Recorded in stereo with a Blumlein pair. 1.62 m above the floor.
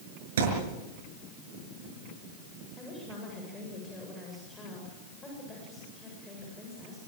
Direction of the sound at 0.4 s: 60° right.